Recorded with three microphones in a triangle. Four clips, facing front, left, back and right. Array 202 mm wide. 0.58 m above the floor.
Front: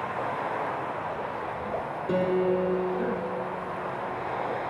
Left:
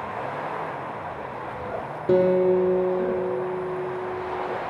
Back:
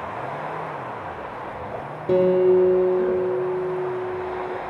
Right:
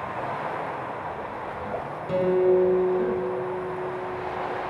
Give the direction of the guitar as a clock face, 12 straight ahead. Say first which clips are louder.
Left 2 dB, back 9 dB; 8 o'clock.